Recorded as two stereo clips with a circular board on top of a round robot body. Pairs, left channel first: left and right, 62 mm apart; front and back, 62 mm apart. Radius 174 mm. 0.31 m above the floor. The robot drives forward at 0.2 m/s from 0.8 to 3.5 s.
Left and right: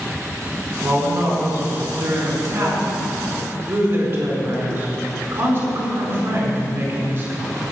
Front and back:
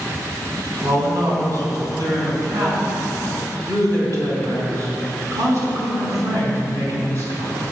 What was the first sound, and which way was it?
A man speaking, 140° right.